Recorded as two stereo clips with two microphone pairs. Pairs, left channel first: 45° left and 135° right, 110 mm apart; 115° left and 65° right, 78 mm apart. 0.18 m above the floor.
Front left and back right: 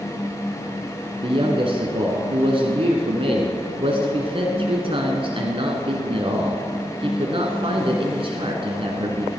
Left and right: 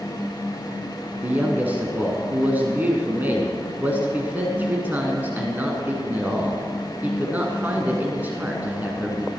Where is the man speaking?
130° right, 1.7 m.